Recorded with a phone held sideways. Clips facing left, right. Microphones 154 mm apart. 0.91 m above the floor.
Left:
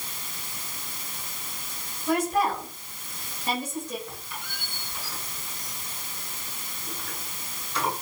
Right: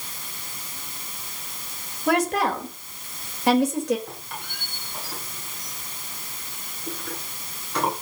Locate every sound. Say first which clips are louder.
2.1 s a woman speaking: right 2 dB; 80° right, 4.5 m
4.1 s a squeak: right 2 dB; 60° right (ahead or behind), 8 m